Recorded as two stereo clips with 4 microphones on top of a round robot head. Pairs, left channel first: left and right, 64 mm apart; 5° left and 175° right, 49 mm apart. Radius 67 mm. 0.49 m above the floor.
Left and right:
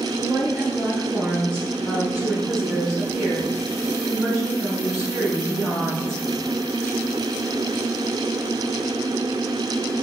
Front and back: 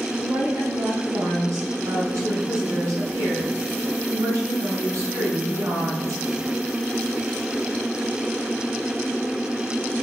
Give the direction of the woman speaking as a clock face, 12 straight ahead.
6 o'clock.